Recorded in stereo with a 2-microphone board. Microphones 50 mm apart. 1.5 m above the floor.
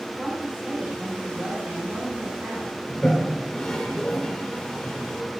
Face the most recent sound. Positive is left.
turn(degrees=15)  # may be behind; listen again after turning